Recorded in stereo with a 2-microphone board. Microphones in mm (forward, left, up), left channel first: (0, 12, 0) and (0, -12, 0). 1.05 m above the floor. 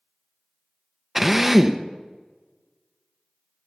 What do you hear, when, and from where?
1.1 s a drill: 5° right (ahead or behind), 0.9 m